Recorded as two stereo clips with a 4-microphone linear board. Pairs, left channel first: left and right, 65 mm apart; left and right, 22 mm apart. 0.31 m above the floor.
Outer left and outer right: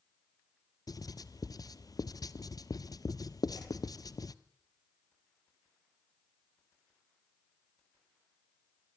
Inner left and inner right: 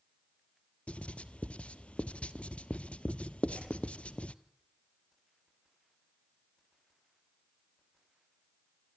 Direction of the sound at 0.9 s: 75° left (ahead or behind).